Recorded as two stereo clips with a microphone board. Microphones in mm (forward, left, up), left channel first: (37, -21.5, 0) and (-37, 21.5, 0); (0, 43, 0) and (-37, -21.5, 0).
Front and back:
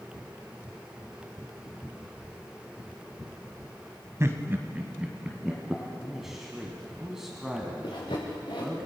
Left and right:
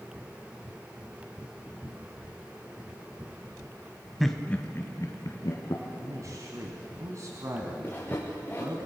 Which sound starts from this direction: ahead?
Sawing, at 7.8 s.